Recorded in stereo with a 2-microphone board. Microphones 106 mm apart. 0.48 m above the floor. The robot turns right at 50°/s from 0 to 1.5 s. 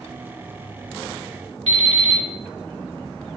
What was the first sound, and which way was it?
An alarm clock, 75° right (ahead or behind).